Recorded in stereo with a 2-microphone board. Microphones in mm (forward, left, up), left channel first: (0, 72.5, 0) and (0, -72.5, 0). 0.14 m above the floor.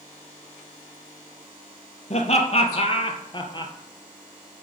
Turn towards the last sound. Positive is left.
turn(degrees=30)  # may be behind; listen again after turning